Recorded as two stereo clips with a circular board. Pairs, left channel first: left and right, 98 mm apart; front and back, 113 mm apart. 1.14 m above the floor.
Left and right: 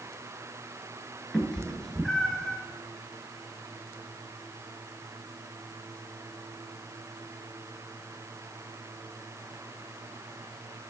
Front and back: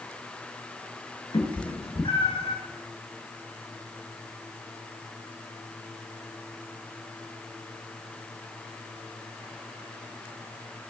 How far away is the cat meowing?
About 1.7 m.